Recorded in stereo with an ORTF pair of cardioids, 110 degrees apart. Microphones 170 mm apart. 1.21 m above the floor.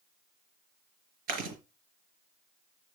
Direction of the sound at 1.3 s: 70° right.